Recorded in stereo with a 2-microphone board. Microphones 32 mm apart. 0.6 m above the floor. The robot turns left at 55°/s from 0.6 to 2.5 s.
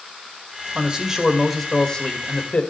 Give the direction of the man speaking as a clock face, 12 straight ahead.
5 o'clock.